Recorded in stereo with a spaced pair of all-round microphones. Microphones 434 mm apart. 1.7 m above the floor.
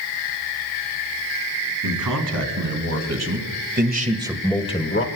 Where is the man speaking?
50° right (ahead or behind), 3.5 m; by 5.1 s 30° left (ahead or behind), 1.2 m.